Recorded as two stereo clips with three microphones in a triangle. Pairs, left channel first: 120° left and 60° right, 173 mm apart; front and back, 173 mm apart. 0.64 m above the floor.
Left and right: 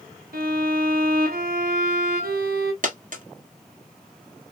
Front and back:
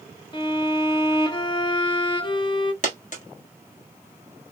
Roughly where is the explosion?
No explosion in this recording.